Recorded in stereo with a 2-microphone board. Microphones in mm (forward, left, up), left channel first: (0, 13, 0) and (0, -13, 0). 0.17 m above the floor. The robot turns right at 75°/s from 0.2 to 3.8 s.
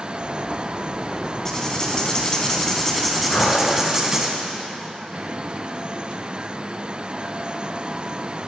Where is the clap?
No clap in this recording.